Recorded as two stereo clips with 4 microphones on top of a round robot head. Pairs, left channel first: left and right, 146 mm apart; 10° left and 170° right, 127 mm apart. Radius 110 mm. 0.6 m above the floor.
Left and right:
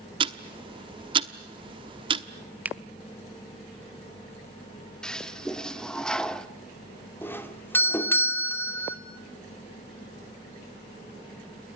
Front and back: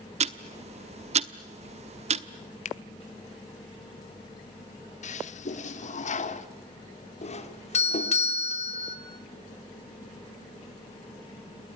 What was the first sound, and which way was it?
Ticking, 145° right.